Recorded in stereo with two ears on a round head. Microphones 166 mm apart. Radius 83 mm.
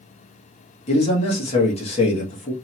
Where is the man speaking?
35° left (ahead or behind), 1.4 m.